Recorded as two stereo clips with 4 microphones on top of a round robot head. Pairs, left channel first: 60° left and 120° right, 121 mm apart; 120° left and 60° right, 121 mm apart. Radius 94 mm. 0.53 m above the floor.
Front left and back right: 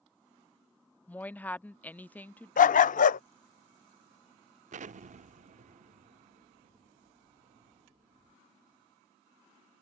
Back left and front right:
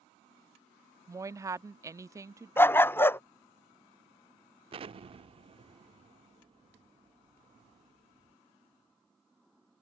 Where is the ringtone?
I don't hear a ringtone.